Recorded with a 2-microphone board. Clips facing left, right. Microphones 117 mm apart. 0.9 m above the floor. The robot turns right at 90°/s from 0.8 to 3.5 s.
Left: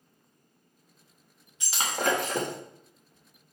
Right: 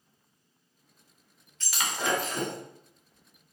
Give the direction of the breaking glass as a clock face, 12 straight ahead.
12 o'clock.